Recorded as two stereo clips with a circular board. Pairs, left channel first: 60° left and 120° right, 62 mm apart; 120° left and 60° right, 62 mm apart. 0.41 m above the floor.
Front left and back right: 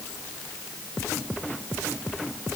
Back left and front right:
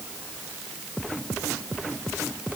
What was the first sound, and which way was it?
Only background noise.